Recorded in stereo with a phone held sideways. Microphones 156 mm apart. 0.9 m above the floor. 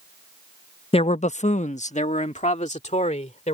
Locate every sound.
0.9 s a man speaking: 40° left (ahead or behind); by 3.5 s 50° left (ahead or behind)